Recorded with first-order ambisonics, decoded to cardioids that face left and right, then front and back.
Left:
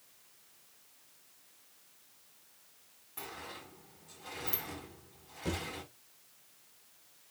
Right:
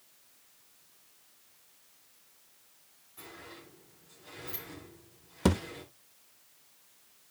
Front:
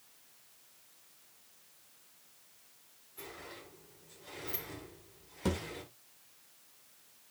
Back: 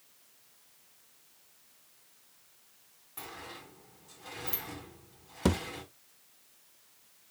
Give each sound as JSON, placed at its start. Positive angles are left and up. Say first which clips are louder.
{"t": 3.2, "sound": "a sliding door", "louder": "left 3 dB, back 3 dB", "azimuth_deg": 140, "distance_m": 4.0}
{"t": 5.5, "sound": "a thud", "louder": "right 8 dB, back 5 dB", "azimuth_deg": -120, "distance_m": 0.8}